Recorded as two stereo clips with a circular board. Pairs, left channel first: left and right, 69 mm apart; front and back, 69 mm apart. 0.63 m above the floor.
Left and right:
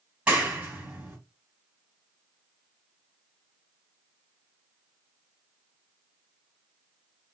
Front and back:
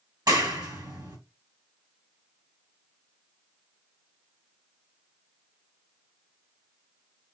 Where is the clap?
160° right, 2.0 m.